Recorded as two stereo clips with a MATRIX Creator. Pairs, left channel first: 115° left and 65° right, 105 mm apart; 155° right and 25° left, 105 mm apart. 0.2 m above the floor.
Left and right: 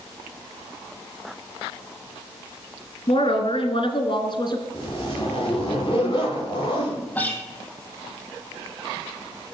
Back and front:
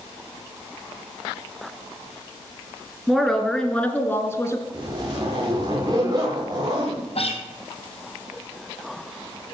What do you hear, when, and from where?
3.1 s a woman speaking: 110° left, 3 m; by 4.6 s 150° left, 2.5 m
4.7 s a zipper: 75° left, 7 m
7.2 s a guitar: 175° right, 3 m